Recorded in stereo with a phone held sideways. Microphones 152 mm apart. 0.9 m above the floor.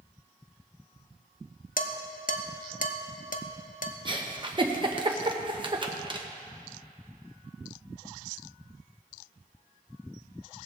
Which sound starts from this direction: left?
Dishes clattering, at 1.8 s.